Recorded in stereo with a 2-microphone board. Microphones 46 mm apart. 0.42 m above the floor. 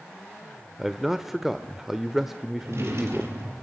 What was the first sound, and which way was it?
A man speaking, 5° right (ahead or behind).